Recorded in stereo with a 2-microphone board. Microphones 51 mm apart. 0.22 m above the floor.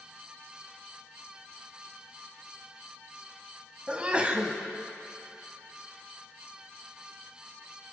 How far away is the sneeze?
About 1.2 m.